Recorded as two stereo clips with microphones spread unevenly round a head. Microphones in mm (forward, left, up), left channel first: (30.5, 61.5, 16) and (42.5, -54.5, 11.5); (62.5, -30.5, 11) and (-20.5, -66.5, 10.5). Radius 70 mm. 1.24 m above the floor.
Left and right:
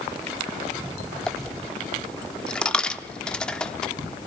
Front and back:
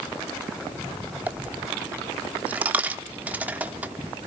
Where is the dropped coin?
160° left, 0.8 m.